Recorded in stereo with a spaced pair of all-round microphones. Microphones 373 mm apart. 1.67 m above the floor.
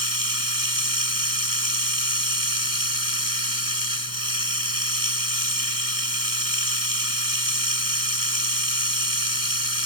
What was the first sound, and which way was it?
Running water, 60° right (ahead or behind).